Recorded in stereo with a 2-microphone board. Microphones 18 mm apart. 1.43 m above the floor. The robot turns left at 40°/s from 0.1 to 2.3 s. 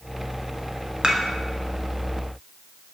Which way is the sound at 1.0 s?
55° right (ahead or behind).